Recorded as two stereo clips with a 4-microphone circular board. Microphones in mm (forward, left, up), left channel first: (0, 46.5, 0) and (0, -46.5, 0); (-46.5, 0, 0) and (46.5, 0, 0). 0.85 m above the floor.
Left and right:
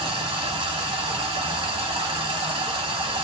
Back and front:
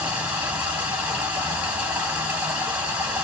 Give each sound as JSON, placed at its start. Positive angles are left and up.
{"t": 0.0, "sound": "running water", "azimuth_deg": -75, "distance_m": 1.3}